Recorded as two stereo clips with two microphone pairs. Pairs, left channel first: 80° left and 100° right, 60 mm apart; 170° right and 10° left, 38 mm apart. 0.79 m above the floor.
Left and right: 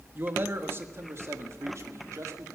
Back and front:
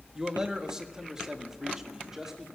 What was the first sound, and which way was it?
A man speaking, 55° right.